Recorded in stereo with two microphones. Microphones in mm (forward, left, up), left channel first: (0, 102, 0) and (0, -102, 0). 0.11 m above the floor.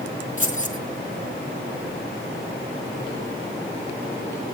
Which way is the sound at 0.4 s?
40° left (ahead or behind).